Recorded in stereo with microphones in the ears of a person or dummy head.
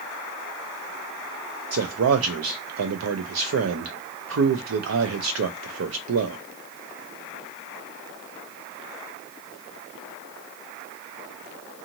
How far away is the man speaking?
About 0.5 m.